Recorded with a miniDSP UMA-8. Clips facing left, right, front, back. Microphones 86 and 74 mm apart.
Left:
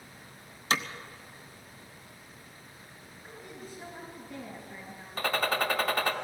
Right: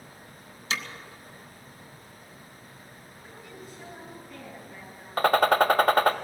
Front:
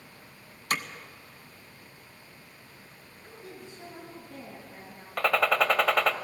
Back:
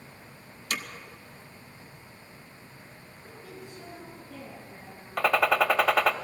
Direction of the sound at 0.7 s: 40° left.